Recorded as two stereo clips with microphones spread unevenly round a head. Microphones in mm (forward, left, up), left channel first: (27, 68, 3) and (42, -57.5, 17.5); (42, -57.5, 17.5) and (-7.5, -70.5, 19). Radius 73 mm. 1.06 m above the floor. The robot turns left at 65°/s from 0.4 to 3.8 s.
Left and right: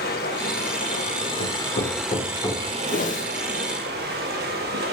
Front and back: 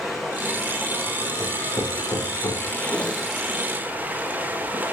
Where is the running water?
110° left, 2.5 m; by 4.9 s 110° right, 2.5 m.